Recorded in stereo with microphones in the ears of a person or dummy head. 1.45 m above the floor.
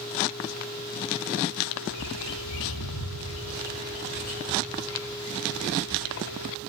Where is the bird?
75° left (ahead or behind), 3.5 m.